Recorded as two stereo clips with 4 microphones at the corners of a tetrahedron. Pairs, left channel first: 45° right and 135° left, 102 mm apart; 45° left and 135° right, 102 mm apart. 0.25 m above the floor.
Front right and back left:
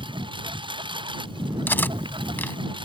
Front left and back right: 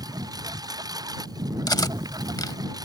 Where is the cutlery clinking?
15° left.